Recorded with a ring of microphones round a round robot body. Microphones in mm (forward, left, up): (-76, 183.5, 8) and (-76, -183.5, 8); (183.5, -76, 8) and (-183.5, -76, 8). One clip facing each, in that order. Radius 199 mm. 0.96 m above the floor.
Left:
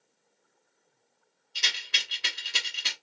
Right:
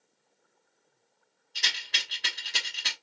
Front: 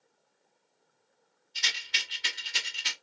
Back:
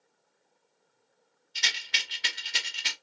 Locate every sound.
1.6 s a rattle: 165° left, 1.1 m